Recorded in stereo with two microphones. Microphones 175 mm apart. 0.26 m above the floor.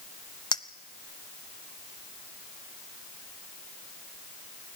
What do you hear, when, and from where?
0.5 s a clink: 25° left (ahead or behind), 0.8 m